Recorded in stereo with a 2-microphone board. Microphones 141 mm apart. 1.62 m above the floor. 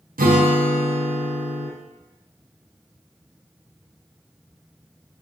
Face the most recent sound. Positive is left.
turn(degrees=-85)